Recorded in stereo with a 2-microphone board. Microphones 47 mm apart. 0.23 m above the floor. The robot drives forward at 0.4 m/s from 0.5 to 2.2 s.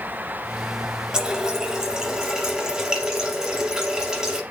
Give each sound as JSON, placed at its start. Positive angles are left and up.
{"t": 1.1, "sound": "a running tap", "side_deg": -15, "distance_m": 0.8}